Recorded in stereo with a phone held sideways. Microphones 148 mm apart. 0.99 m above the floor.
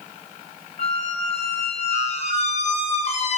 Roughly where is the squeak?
Left.